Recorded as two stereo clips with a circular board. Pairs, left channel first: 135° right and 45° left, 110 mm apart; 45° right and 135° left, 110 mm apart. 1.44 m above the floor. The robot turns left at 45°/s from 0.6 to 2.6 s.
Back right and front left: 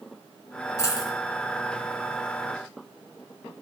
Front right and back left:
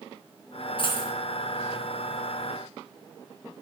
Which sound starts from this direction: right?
A dropped coin, at 0.8 s.